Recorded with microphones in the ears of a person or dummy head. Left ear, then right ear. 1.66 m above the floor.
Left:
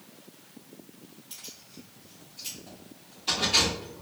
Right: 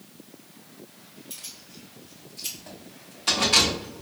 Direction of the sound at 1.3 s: 10° right (ahead or behind).